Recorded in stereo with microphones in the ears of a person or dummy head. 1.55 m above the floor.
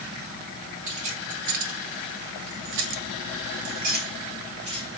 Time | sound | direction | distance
0.9 | keys jangling | 45° right (ahead or behind) | 2 m